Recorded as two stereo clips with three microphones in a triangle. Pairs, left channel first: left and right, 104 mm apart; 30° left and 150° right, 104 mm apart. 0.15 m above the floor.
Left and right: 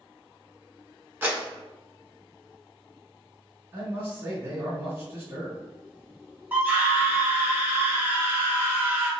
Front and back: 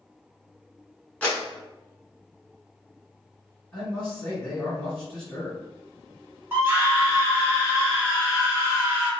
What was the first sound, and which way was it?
A clap, 40° right.